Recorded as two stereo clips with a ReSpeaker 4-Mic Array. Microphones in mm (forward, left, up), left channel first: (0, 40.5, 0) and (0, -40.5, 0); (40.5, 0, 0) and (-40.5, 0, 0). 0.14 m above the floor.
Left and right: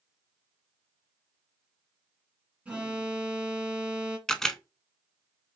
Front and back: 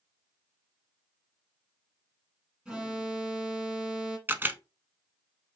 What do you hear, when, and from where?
2.6 s an alarm: 130° right, 1.5 m
4.3 s a camera shutter: 165° left, 0.5 m